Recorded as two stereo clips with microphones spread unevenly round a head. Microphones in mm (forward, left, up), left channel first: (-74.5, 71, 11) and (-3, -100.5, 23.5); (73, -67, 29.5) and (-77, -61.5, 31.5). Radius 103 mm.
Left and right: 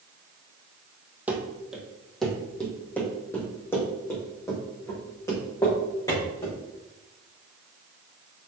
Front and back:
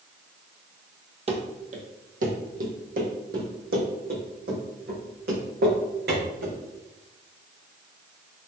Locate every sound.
1.3 s running footsteps: 145° right, 1.8 m; by 6.6 s 175° right, 5 m